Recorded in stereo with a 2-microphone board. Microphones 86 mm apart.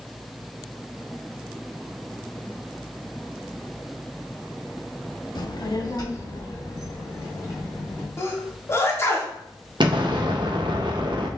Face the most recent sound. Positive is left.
turn(degrees=-60)  # may be behind; listen again after turning